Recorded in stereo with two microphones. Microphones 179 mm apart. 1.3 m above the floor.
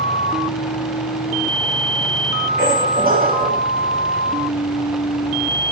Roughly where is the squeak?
Right.